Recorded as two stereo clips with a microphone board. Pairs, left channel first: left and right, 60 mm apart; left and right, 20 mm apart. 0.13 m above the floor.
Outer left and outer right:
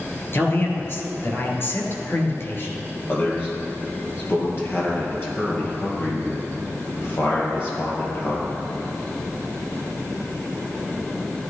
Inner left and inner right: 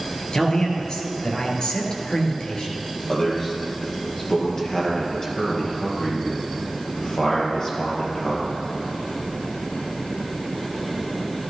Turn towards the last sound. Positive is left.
turn(degrees=40)  # may be behind; listen again after turning